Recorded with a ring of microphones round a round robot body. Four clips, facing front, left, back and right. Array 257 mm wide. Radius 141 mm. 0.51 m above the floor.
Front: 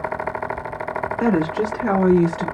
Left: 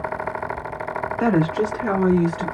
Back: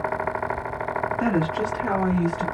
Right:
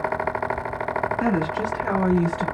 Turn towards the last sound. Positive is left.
turn(degrees=-10)